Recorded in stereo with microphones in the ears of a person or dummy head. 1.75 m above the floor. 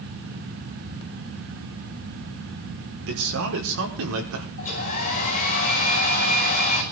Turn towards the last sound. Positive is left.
turn(degrees=45)  # may be behind; listen again after turning